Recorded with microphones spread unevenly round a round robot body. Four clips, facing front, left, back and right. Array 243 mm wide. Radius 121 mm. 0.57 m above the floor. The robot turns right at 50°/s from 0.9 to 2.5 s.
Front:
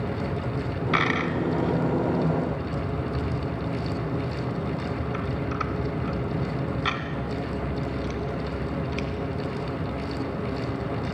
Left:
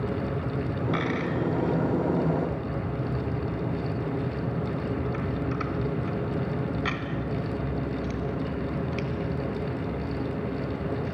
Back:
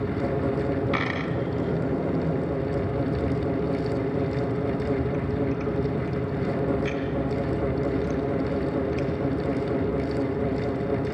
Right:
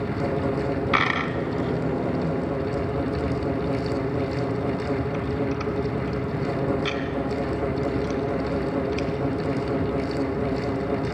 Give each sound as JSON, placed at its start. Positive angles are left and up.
{"t": 0.9, "sound": "a dropped coin", "azimuth_deg": -70, "distance_m": 2.5}